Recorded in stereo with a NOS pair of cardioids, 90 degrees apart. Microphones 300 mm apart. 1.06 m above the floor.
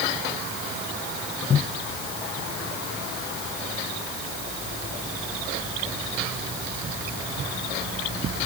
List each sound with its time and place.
Only background noise.